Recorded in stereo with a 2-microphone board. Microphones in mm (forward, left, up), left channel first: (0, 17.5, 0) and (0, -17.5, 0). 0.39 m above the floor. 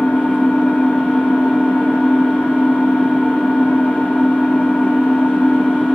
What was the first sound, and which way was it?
An engine running, 90° left.